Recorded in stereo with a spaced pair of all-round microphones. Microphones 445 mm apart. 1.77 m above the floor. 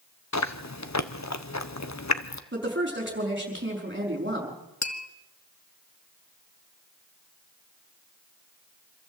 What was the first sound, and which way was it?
Chewing, 40° left (ahead or behind).